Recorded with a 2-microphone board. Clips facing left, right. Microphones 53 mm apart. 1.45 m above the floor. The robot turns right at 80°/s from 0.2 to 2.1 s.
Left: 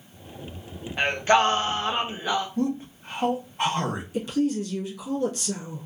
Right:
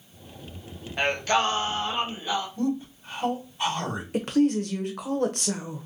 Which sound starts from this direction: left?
A man speaking, at 2.6 s.